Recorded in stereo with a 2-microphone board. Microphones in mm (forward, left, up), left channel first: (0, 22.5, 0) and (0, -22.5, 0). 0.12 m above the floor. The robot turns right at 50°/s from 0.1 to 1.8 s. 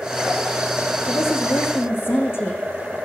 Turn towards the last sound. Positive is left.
turn(degrees=120)